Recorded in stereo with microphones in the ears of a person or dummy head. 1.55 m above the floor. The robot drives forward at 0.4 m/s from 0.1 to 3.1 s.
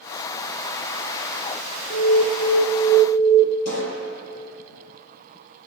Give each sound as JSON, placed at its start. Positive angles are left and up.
{"t": 1.9, "sound": "an alarm", "side_deg": 30, "distance_m": 1.5}
{"t": 3.6, "sound": "a pop", "side_deg": 85, "distance_m": 5.5}